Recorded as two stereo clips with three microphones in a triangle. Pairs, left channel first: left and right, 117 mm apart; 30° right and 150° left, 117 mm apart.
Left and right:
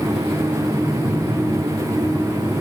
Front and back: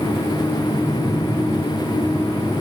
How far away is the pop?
I don't hear a pop.